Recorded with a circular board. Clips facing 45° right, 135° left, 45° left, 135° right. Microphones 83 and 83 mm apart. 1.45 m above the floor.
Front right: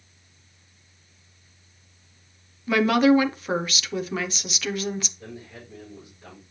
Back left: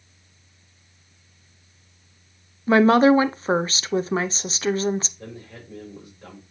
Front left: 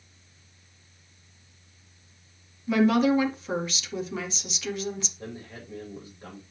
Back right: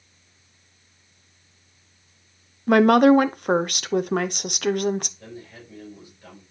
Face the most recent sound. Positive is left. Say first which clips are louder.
# back left 1 dB, front left 1 dB
turn(degrees=100)